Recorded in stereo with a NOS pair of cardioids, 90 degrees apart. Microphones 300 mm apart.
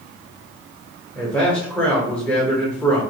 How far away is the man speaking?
About 1.1 m.